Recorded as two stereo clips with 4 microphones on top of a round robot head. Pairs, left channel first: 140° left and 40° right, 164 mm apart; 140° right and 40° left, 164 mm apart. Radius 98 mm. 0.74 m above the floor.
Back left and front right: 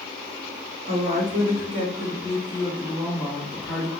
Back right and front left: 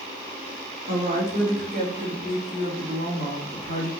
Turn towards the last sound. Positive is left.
turn(degrees=55)